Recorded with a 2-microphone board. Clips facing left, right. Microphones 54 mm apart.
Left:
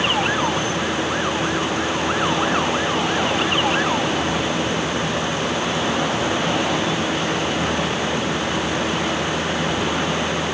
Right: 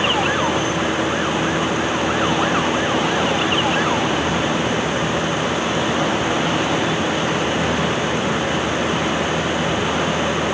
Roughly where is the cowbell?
No cowbell in this recording.